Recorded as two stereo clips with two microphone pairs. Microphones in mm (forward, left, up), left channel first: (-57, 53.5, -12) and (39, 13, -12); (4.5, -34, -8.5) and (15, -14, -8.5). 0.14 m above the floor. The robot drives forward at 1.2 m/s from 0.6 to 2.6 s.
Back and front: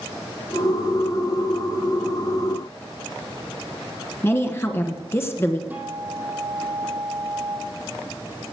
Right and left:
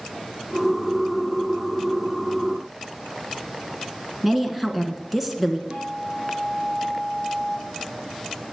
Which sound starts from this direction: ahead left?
A guitar, at 5.7 s.